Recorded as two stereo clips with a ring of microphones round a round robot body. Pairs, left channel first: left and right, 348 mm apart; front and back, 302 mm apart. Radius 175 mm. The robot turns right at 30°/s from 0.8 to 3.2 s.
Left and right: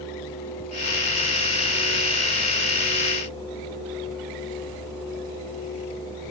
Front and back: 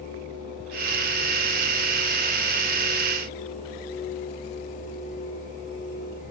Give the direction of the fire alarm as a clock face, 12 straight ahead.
No fire alarm in this recording.